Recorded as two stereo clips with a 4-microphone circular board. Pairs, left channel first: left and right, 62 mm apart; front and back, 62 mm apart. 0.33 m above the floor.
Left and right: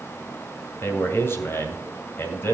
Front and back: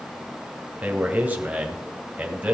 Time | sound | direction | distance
0.8 | a man speaking | 120° left | 2 m